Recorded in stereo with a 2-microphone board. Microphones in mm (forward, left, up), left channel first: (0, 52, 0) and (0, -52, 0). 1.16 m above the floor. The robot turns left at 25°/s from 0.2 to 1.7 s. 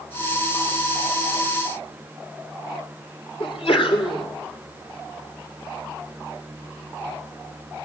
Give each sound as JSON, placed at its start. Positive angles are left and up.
{"t": 3.4, "sound": "a sneeze", "side_deg": 65, "distance_m": 3.5}